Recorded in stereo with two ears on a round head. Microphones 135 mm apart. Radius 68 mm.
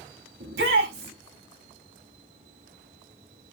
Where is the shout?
85° right, 3.5 m.